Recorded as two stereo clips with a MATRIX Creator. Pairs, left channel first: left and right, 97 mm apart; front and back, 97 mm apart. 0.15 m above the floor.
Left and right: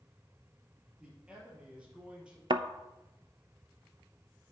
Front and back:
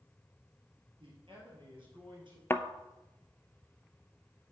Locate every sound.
1.0 s a man speaking: 165° right, 4 m
2.5 s a thud: 65° right, 0.5 m